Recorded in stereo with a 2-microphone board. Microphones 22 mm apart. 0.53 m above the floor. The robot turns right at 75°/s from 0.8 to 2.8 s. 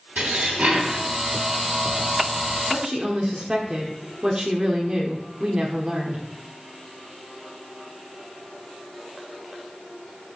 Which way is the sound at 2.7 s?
30° right (ahead or behind).